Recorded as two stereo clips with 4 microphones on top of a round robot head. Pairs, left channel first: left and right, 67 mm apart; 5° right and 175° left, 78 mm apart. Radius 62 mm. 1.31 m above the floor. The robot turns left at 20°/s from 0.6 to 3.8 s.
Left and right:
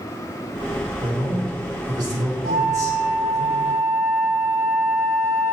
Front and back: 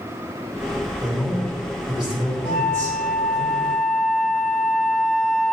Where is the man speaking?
85° right, 4 m; by 3.5 s 135° right, 4 m.